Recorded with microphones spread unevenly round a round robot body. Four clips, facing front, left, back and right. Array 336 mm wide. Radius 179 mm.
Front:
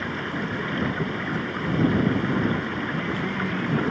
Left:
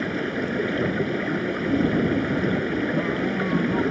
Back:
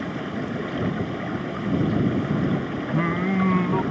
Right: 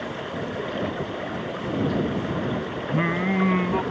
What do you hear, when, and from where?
0.0 s running water: 110° left
2.9 s singing: 150° right